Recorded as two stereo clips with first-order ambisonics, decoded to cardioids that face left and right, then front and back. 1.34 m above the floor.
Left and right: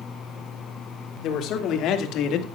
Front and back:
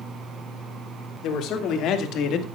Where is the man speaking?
40° left, 3 m; by 2.5 s 50° left, 2.0 m.